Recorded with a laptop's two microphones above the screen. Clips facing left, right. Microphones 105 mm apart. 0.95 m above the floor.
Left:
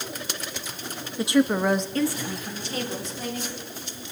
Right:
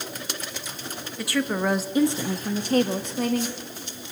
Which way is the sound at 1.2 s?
25° left (ahead or behind).